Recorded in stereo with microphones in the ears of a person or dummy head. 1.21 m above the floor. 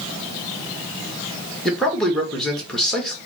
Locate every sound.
1.6 s a man speaking: centre (ahead or behind), 1.4 m